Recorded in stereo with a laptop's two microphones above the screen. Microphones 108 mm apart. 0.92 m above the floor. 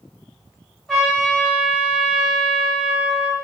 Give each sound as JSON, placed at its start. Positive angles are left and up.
{"t": 0.9, "sound": "a trumpet", "side_deg": 5, "distance_m": 2.0}